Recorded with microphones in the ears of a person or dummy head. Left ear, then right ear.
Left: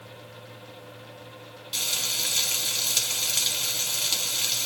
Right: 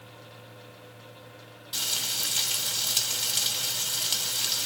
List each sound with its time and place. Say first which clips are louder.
1.7 s frying: left 2 dB; 10° right (ahead or behind), 1.4 m